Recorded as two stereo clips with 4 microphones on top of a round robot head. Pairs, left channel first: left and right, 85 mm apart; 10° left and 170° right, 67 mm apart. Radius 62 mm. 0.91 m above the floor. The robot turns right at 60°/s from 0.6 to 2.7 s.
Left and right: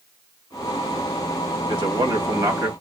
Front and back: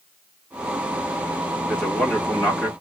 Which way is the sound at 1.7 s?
85° right.